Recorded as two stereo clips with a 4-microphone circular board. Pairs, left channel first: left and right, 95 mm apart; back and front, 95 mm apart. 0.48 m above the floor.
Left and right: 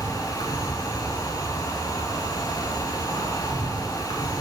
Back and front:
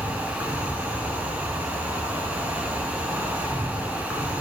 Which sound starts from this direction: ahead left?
An insect, at 0.0 s.